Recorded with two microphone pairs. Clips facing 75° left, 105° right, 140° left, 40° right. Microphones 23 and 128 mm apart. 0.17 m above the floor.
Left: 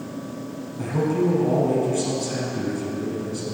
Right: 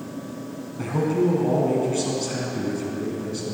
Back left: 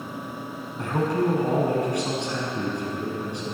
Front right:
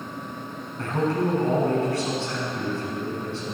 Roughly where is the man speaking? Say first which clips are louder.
Even, even; behind.